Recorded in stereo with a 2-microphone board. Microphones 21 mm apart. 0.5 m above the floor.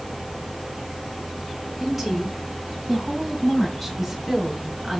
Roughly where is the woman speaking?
Centre.